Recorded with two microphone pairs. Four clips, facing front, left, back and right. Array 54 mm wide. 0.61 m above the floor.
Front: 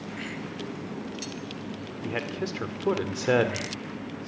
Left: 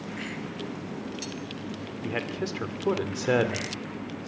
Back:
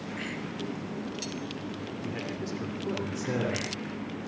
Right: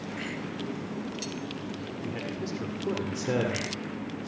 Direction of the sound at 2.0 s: 50° left.